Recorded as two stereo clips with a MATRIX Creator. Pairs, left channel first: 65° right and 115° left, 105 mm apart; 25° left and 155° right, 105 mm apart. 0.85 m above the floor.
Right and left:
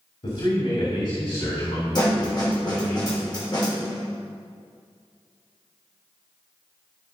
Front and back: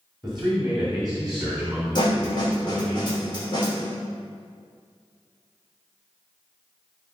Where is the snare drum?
20° right, 3 m.